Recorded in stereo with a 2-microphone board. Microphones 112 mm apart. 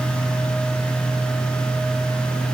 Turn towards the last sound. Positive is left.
No sound to turn to.